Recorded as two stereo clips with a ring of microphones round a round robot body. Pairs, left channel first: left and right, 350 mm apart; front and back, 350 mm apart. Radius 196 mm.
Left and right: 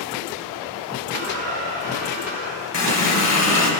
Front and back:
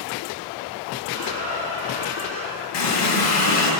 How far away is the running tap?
About 1.4 m.